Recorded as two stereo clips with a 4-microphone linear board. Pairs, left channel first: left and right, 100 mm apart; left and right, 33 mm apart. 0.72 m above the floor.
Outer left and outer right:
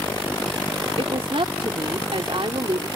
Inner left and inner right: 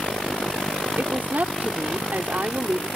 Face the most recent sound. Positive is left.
turn(degrees=-65)  # may be behind; listen again after turning